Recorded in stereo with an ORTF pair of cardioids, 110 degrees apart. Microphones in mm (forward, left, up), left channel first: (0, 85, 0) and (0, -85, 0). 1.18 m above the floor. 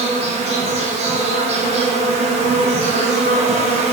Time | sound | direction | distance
0.0 | an insect | 40° right | 0.8 m